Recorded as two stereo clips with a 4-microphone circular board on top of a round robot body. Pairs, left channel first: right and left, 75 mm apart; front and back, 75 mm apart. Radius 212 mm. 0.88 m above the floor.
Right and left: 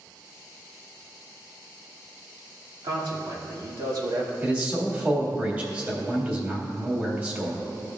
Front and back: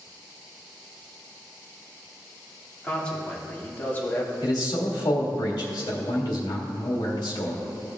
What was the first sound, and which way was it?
A man speaking, 80° left.